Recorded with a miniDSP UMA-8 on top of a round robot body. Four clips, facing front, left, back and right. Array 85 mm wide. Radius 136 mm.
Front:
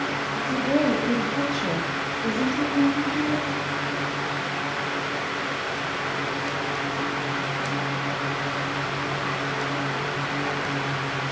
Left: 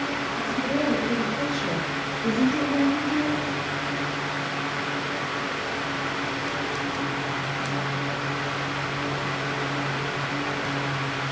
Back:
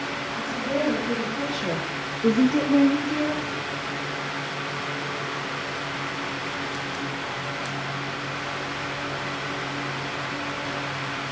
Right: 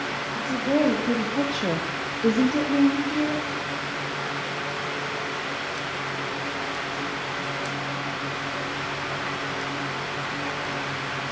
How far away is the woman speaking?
About 1.8 m.